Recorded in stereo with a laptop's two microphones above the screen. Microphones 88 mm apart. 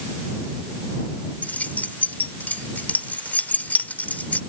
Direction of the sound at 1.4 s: 20° left (ahead or behind).